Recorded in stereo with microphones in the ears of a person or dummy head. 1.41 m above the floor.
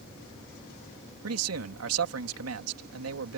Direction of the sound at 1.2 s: 80° right.